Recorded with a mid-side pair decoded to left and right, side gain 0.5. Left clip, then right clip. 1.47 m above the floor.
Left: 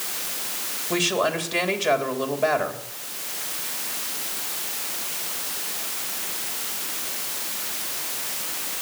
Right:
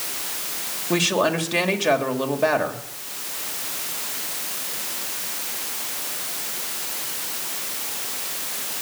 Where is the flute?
I don't hear a flute.